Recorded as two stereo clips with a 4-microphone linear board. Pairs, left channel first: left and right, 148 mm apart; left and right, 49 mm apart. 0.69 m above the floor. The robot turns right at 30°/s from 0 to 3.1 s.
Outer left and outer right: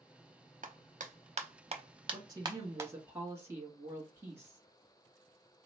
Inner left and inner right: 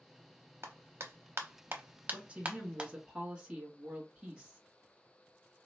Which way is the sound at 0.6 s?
60° right (ahead or behind).